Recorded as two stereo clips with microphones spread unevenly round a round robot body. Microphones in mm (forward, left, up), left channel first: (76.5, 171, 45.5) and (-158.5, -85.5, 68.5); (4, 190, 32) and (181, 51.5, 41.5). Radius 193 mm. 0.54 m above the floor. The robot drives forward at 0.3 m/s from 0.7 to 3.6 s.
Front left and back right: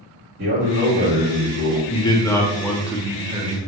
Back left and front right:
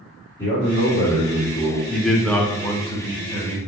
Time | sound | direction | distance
0.4 | a man speaking | 160° right | 1.3 m
1.9 | a man speaking | 45° left | 0.6 m